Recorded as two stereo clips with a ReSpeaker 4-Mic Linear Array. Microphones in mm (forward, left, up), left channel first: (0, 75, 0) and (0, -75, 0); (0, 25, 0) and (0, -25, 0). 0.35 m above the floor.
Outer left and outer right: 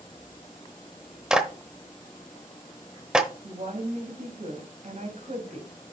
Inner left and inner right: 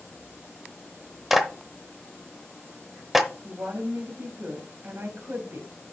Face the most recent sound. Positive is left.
turn(degrees=-55)  # may be behind; listen again after turning